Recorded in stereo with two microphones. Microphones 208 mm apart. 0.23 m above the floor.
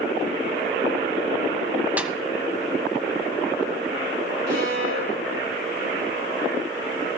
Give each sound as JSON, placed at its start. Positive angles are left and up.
{"t": 2.0, "sound": "a snare drum", "side_deg": -5, "distance_m": 0.9}
{"t": 4.5, "sound": "a violin", "side_deg": -65, "distance_m": 9.0}